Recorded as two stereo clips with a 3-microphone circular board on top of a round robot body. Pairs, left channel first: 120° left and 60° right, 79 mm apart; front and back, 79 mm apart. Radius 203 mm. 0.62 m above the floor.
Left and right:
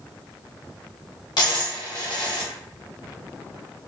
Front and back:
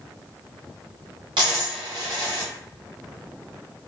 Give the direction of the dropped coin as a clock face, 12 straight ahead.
7 o'clock.